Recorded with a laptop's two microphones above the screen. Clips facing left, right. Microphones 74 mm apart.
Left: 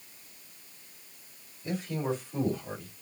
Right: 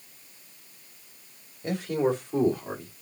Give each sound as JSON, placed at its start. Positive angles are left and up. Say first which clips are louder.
{"t": 1.6, "sound": "a man speaking", "louder": "right 6 dB", "side_deg": -65, "distance_m": 2.0}